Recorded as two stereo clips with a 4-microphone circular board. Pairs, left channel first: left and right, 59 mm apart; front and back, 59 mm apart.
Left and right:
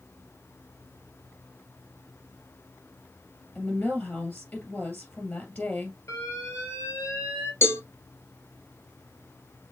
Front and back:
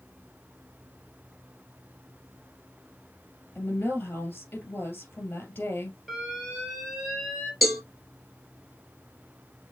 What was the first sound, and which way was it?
A woman speaking, 45° left.